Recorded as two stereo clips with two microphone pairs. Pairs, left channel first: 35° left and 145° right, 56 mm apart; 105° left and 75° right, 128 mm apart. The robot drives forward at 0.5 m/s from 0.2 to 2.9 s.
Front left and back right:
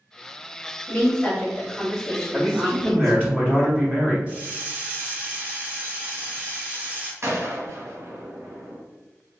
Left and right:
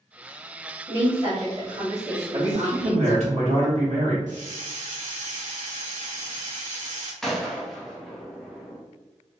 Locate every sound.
0.9 s a woman speaking: 20° right, 1.8 m; by 3.3 s 45° right, 1.0 m
2.3 s a man speaking: 65° right, 1.0 m; by 4.2 s 85° right, 1.0 m
4.3 s a hiss: 80° right, 1.0 m
7.2 s a gunshot: 170° right, 0.7 m